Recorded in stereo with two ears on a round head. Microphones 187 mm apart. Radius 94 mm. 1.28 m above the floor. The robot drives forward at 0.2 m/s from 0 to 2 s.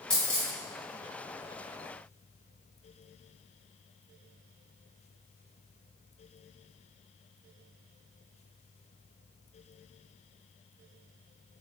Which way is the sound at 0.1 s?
5° left (ahead or behind).